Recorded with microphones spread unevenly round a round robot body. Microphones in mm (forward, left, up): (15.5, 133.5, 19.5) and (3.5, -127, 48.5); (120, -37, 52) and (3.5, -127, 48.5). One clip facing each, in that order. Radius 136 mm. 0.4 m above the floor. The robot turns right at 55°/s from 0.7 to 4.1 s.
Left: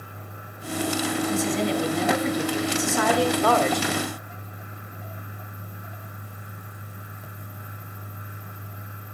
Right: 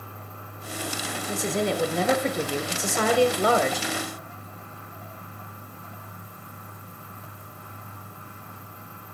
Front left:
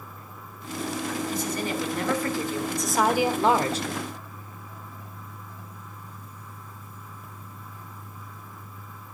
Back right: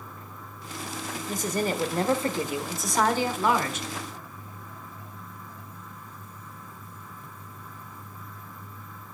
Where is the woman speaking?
140° right, 1.4 m; by 3.9 s straight ahead, 1.4 m.